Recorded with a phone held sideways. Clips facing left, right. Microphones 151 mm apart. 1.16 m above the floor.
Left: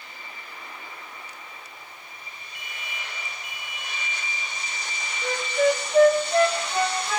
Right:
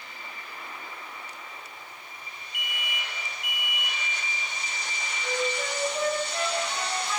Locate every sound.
2.5 s an alarm: 75° right (ahead or behind), 3 m
5.2 s a flute: 65° left (ahead or behind), 2 m